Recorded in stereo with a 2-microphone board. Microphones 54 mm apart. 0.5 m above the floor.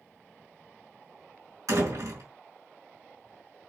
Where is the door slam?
80° right, 4 m.